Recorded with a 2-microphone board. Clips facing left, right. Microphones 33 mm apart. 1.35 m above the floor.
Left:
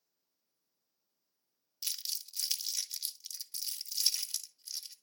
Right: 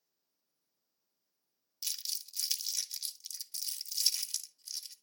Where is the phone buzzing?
I don't hear a phone buzzing.